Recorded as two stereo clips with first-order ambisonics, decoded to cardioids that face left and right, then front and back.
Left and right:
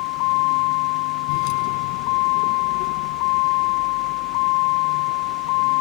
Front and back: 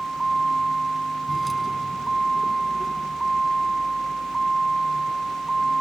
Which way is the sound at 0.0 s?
100° left.